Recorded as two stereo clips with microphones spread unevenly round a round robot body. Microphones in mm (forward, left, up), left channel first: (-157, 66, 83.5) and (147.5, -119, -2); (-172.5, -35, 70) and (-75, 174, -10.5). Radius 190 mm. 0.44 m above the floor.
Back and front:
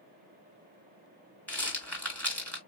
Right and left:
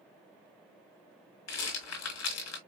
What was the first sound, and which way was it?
A rattle, 125° right.